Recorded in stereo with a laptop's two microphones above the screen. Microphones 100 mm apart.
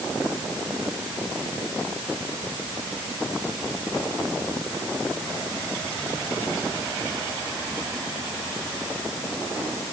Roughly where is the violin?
No violin in this recording.